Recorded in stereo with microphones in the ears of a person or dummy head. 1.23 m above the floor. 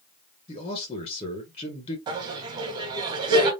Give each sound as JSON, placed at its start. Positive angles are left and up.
{"t": 0.5, "sound": "a man speaking", "side_deg": 40, "distance_m": 0.9}
{"t": 2.1, "sound": "laughter", "side_deg": -20, "distance_m": 1.4}